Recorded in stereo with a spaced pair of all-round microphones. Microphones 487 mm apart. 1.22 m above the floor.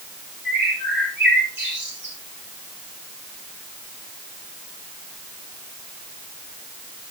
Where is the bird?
20° right (ahead or behind), 3.5 m.